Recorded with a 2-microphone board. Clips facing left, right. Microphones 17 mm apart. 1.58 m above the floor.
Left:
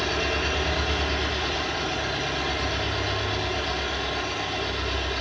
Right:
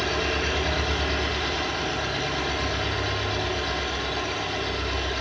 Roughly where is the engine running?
Centre.